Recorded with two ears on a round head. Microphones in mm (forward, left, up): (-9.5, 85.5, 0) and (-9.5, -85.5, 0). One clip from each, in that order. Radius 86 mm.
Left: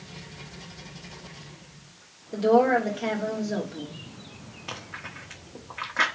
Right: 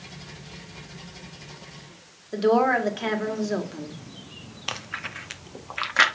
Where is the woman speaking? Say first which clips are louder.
Even; 35° right (ahead or behind), 2.0 m.